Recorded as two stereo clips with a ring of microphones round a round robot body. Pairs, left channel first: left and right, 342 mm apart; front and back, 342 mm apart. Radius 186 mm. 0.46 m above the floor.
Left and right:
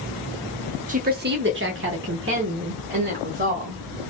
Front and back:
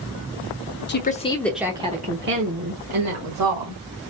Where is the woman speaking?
35° right, 0.9 m; by 3.8 s 150° right, 2 m.